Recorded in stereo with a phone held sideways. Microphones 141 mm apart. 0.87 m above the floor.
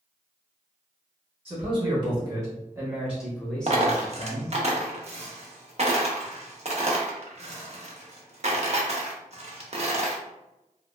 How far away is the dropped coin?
About 0.5 m.